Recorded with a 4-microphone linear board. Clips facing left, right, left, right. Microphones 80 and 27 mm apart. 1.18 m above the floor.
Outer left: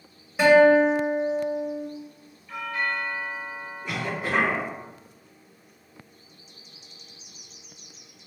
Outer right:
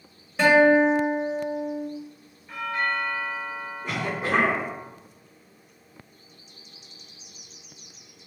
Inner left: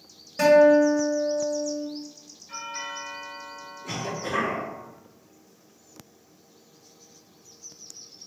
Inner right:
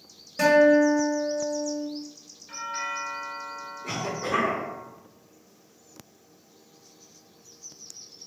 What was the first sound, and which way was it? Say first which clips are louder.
A guitar: outer left 1 dB, inner left 2 dB; 5° left (ahead or behind).